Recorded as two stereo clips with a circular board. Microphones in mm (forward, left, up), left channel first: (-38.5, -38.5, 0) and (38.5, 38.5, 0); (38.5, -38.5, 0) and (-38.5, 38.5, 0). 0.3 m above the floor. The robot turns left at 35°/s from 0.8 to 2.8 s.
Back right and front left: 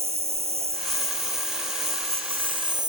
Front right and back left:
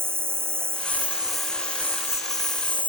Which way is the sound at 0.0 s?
65° left.